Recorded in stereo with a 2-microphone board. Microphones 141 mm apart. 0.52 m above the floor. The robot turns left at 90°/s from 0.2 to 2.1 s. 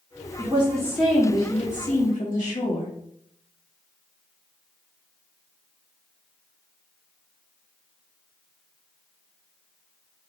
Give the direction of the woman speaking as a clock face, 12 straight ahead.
4 o'clock.